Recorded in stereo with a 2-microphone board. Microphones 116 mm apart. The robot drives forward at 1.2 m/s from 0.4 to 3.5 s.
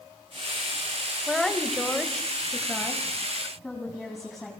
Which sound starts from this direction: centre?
A woman speaking, at 1.3 s.